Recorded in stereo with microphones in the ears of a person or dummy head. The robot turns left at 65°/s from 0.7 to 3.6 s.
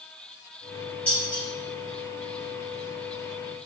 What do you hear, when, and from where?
1.1 s dishes clattering: 5° left (ahead or behind), 1.1 m; by 1.4 s 20° left (ahead or behind), 1.1 m